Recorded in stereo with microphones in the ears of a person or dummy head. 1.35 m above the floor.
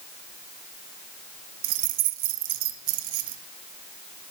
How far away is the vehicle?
I don't hear a vehicle.